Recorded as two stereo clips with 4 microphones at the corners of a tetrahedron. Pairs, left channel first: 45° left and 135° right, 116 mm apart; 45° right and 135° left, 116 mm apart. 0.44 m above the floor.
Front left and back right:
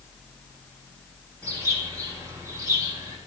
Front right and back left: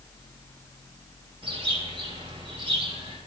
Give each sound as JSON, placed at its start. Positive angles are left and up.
{"t": 1.4, "sound": "a bird", "azimuth_deg": 165, "distance_m": 2.5}